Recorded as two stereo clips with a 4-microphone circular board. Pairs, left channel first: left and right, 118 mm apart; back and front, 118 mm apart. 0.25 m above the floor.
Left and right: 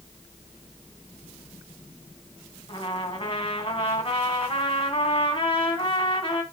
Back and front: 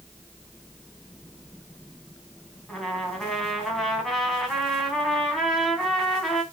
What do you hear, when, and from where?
2.7 s a trumpet: 90° left, 2.5 m